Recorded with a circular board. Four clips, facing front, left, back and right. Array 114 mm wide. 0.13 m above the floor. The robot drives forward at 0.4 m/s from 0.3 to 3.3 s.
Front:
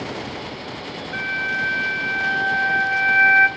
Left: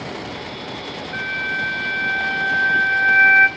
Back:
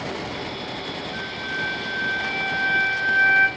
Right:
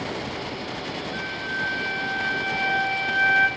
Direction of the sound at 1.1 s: 45° left.